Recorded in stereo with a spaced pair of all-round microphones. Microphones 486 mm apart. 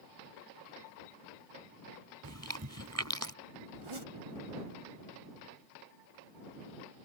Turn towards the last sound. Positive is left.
turn(degrees=-85)